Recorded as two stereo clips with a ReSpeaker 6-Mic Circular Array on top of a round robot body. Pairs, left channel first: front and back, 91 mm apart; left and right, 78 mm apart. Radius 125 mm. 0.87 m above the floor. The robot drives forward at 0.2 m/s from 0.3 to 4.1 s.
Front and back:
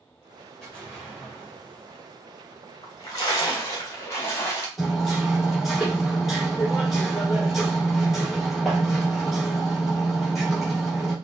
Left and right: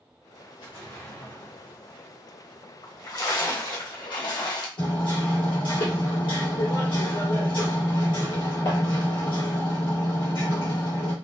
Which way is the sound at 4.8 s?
90° left.